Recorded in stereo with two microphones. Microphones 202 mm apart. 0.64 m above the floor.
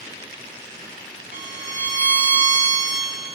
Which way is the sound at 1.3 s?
65° left (ahead or behind).